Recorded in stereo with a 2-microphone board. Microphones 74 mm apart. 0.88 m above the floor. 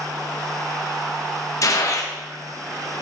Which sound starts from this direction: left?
A gunshot, at 1.6 s.